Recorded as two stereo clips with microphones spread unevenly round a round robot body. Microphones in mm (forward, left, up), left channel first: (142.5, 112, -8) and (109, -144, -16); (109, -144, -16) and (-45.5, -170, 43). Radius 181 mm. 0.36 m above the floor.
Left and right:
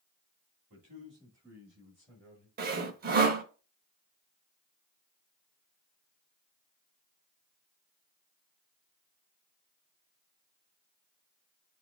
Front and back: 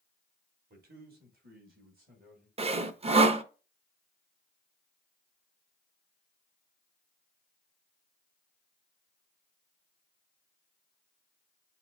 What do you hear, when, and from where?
0.7 s a man speaking: 145° right, 1.5 m; by 2.5 s 140° left, 1.3 m
2.6 s sawing: 105° right, 0.5 m